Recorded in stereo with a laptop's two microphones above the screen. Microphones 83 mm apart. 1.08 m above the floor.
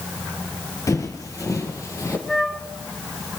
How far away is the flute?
About 1.4 m.